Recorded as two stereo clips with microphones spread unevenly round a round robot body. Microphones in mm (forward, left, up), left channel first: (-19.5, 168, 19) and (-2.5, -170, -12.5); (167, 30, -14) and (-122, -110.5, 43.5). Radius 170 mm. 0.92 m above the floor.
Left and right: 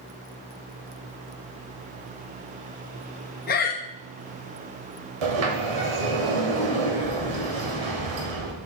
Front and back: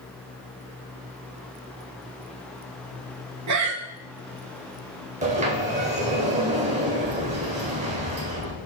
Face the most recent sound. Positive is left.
turn(degrees=-85)